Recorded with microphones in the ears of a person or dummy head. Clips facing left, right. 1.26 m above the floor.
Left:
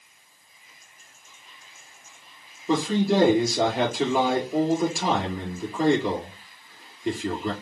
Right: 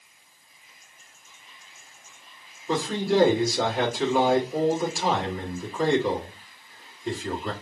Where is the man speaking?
70° left (ahead or behind), 3.5 m.